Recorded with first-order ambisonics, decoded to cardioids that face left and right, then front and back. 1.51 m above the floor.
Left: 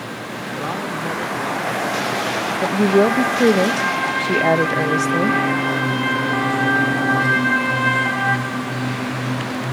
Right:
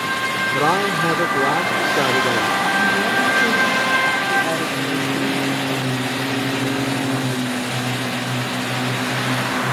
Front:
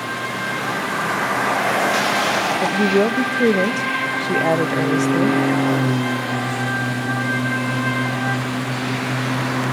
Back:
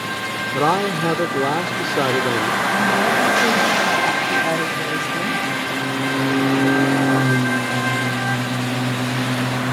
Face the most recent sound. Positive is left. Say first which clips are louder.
# left 1 dB, even
turn(degrees=55)